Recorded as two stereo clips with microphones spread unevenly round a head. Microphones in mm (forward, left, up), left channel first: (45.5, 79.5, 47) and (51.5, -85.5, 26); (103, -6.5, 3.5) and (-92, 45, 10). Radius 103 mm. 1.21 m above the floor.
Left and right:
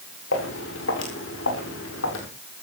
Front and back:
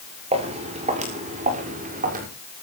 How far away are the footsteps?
About 7.5 m.